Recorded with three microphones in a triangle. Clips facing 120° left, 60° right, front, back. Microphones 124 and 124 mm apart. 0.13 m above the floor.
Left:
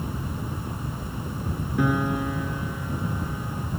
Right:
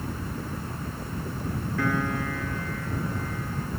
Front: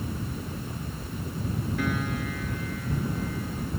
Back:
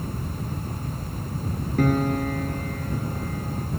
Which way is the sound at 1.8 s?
175° right.